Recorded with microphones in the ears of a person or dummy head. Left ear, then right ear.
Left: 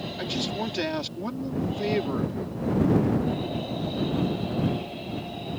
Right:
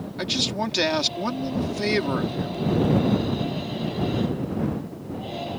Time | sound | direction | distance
0.2 | a man speaking | 15° right (ahead or behind) | ?